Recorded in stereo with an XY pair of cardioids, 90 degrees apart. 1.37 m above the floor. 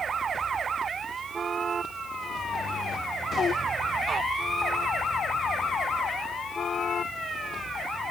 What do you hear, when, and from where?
Only background noise.